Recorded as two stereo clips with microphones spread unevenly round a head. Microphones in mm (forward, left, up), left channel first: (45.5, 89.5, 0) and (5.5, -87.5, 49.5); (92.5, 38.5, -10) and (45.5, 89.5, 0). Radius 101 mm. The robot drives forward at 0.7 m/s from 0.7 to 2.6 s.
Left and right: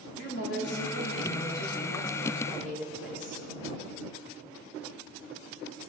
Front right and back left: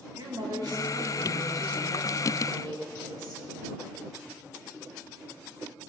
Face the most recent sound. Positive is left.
turn(degrees=130)